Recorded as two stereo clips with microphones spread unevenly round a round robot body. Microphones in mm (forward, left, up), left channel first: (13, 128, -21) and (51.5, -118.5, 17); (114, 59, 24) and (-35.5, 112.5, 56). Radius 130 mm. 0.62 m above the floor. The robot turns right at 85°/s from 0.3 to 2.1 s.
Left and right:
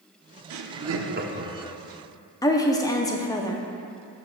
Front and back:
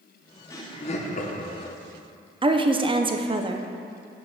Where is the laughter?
85° right, 1.0 m; by 1.8 s 20° left, 1.0 m.